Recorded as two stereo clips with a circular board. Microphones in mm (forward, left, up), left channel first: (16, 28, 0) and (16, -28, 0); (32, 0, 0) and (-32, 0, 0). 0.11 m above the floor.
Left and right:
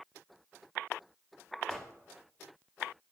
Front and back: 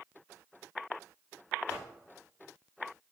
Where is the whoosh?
150° left, 1.1 m.